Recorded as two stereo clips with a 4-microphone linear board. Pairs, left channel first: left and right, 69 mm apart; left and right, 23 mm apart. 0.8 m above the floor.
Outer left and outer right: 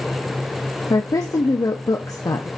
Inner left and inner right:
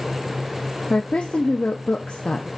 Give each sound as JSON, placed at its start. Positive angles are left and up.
{"t": 0.9, "sound": "a woman speaking", "side_deg": 55, "distance_m": 0.7}